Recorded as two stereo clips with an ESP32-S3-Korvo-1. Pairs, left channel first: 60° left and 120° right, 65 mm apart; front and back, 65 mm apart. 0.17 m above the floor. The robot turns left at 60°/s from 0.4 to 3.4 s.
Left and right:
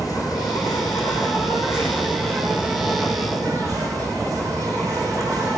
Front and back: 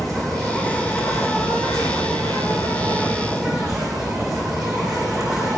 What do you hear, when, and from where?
0.0 s an insect: 90° left, 8.5 m; by 5.6 s 90° right, 8.5 m